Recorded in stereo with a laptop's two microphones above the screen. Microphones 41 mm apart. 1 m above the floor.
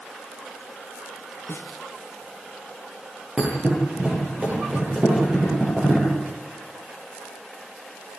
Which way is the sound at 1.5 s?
70° left (ahead or behind).